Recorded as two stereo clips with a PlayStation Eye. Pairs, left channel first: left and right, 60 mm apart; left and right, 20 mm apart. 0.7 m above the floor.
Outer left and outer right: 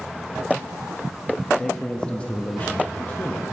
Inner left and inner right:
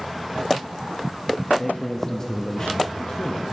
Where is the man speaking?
10° left (ahead or behind), 0.7 m; by 3.4 s 30° left (ahead or behind), 0.8 m.